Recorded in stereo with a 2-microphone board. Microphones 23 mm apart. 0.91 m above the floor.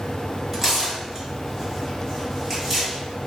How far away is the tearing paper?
About 1.7 m.